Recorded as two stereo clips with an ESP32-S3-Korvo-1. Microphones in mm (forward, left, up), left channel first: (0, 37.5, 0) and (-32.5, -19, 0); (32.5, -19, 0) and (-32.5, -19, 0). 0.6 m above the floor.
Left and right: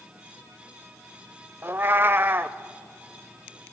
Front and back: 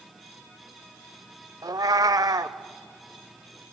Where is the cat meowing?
175° right, 0.6 m.